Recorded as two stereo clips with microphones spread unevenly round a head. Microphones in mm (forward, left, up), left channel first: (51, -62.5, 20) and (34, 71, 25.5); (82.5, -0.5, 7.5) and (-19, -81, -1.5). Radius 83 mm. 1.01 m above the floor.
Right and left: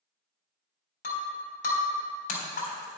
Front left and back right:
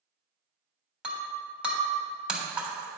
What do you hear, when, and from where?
1.0 s breaking glass: 60° right, 3 m